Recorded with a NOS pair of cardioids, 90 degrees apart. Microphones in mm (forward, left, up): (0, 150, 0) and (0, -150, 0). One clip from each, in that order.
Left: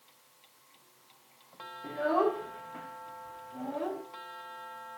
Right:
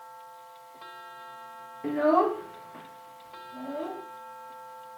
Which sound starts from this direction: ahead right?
A child speaking, at 1.8 s.